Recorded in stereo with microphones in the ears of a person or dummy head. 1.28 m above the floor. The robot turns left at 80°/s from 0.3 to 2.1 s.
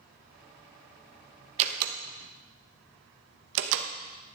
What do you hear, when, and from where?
1.6 s a door slam: 40° right (ahead or behind), 0.9 m; by 3.9 s 75° right (ahead or behind), 0.9 m